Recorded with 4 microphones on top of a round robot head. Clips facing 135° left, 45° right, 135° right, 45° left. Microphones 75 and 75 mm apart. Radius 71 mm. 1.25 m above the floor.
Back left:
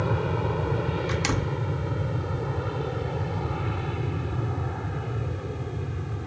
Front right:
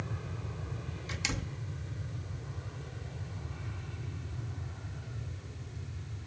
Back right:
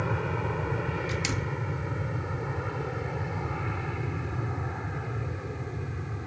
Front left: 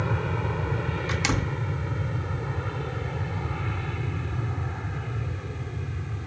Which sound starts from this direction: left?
A door slam, at 1.1 s.